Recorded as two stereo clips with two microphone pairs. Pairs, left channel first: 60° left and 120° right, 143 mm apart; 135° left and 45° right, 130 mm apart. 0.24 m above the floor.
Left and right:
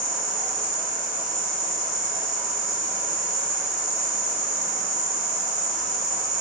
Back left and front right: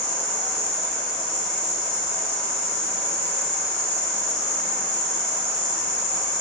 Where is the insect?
45° left, 1.0 m.